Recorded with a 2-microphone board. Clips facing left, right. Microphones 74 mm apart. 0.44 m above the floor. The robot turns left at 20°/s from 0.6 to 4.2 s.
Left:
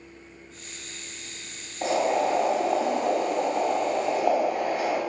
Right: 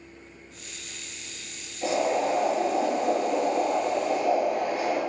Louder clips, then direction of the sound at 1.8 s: Left 1 dB; 115° left.